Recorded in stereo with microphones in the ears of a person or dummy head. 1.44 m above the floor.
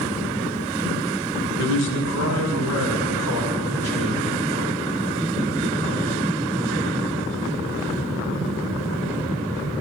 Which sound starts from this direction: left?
A man speaking, at 1.6 s.